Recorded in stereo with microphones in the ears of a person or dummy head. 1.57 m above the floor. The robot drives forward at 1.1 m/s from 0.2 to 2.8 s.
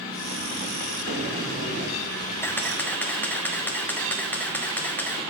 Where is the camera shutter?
5° left (ahead or behind), 0.6 m.